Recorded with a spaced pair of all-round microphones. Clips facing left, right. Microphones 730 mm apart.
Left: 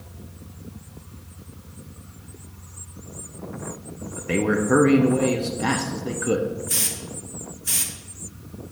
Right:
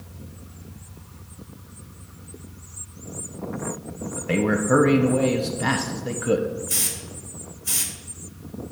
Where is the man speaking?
15° right (ahead or behind), 0.9 m.